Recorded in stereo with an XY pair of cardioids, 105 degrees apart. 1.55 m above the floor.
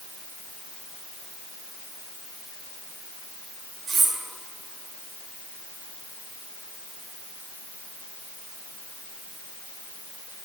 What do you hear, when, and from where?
3.9 s cutlery clinking: 60° right, 2 m